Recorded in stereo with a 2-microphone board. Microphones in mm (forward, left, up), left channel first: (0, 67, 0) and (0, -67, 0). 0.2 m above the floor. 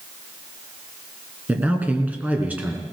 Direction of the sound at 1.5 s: 10° right (ahead or behind).